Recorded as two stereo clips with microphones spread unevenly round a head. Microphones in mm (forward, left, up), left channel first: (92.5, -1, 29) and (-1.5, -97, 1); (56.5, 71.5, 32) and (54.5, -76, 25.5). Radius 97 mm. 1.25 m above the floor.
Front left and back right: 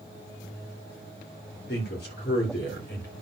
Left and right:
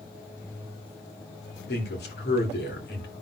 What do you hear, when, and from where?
1.7 s a man speaking: 85° left, 3 m